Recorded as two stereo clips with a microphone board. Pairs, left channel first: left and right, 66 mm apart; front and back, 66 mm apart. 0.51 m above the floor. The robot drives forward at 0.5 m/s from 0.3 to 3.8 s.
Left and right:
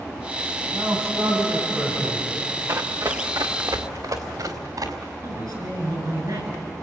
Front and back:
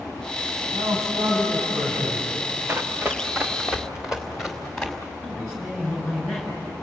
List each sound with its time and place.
0.7 s a man speaking: 140° right, 4.5 m; by 2.3 s 145° right, 5 m
2.7 s running footsteps: 125° right, 1.9 m; by 5.1 s 85° right, 4 m
5.2 s a man speaking: 95° right, 8 m